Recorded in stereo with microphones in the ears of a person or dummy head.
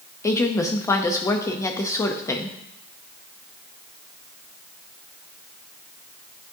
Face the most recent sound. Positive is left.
turn(degrees=15)  # may be behind; listen again after turning